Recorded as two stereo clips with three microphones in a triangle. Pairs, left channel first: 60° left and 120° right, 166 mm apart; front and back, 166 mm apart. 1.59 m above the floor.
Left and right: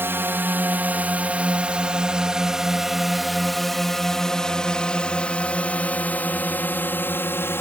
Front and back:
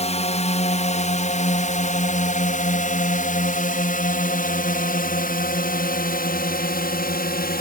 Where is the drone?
45° right; by 7.6 s 15° right.